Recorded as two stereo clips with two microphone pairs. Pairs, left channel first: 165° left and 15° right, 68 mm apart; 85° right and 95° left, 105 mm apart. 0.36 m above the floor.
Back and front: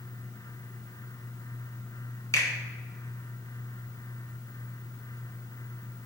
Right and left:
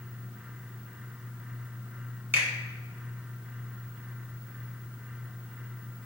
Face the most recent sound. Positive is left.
turn(degrees=160)